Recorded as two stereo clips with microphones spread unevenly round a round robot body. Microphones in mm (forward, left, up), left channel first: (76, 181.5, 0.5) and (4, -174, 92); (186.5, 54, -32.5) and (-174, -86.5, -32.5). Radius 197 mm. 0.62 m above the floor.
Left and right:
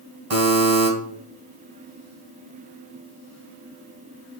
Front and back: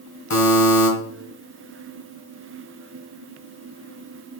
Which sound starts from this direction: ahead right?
A buzzer, at 0.3 s.